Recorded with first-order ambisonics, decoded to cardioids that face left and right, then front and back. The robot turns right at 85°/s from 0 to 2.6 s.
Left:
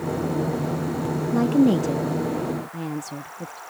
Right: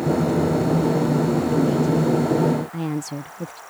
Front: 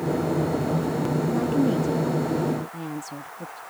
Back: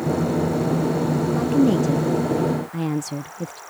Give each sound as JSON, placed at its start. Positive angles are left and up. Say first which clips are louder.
{"t": 1.3, "sound": "a woman speaking", "louder": "left 1 dB, back 5 dB", "azimuth_deg": 100}